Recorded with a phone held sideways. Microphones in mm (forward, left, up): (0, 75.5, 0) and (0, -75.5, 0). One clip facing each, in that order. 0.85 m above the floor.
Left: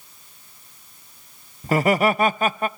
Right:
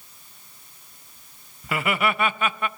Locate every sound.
1.6 s laughter: 35° left (ahead or behind), 0.6 m